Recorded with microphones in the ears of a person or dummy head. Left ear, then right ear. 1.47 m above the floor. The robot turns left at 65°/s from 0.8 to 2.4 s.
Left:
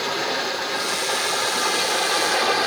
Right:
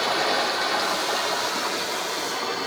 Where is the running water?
140° right, 0.7 m; by 2.7 s 120° left, 0.7 m.